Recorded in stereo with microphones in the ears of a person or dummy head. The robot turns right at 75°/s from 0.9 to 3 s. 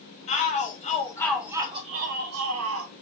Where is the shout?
145° left, 0.7 m; by 2.9 s 65° right, 0.7 m.